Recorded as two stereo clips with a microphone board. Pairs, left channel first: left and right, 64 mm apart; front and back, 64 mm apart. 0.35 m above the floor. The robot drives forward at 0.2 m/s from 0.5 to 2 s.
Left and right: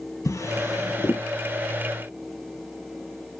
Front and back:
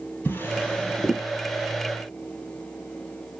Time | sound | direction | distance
0.2 | a drawer | 60° left | 2 m